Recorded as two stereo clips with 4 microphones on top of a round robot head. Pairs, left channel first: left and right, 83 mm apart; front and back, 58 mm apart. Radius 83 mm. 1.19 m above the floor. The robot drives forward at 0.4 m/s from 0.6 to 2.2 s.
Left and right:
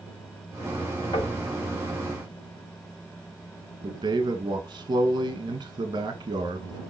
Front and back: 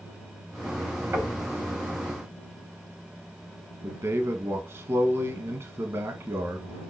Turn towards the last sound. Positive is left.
turn(degrees=-130)